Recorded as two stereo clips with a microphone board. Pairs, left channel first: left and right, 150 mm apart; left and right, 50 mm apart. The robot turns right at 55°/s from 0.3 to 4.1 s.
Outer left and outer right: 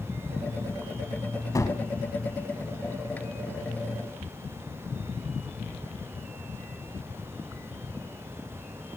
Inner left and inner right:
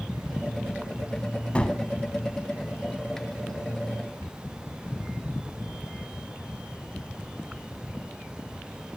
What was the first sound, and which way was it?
A gunshot, 25° left (ahead or behind).